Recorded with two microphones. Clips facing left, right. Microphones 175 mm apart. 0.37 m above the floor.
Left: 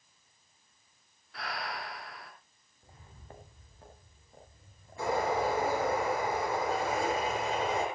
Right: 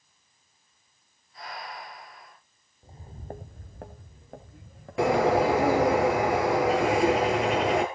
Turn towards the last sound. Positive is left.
turn(degrees=-75)  # may be behind; listen again after turning